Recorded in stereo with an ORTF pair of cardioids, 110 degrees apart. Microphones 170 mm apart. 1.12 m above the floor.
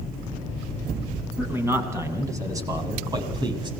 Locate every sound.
1.4 s a man speaking: 15° right, 8 m; by 3.7 s 30° right, 6.5 m